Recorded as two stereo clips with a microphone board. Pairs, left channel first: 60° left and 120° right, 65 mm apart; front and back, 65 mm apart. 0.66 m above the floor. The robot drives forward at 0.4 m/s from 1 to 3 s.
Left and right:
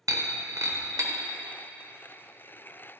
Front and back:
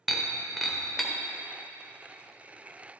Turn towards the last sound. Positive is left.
turn(degrees=-130)